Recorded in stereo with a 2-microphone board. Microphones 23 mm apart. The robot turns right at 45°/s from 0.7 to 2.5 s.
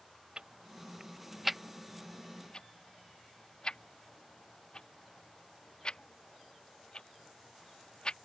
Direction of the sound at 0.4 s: 45° right (ahead or behind).